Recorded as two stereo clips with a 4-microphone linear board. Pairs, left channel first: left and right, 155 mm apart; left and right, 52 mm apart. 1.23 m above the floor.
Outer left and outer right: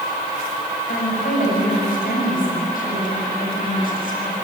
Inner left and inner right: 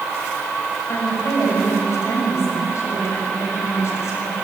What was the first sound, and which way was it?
A woman speaking, 60° left (ahead or behind).